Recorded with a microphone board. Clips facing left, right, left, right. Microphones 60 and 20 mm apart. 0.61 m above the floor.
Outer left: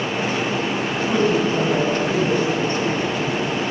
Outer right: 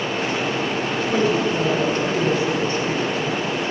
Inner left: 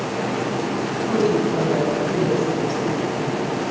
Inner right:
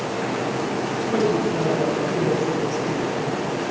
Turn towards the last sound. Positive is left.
turn(degrees=40)  # may be behind; listen again after turning